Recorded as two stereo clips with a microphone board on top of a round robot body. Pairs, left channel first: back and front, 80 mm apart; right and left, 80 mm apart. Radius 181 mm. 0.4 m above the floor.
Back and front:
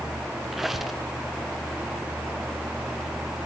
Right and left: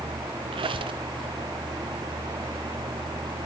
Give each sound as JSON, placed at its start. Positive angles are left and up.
{"t": 0.5, "sound": "a squeak", "azimuth_deg": 90, "distance_m": 1.3}